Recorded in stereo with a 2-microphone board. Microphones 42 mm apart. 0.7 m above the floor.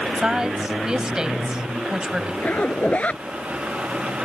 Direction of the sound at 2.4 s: 35° left (ahead or behind).